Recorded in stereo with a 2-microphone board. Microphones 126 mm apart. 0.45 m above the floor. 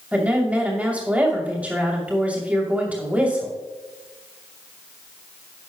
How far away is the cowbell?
I don't hear a cowbell.